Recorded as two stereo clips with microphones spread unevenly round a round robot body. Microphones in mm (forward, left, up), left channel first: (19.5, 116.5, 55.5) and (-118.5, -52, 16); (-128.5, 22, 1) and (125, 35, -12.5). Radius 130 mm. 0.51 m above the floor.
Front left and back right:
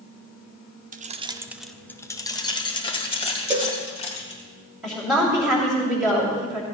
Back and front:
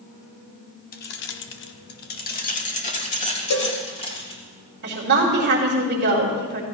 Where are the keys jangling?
130° right, 0.8 m; by 4.4 s 115° left, 3.5 m.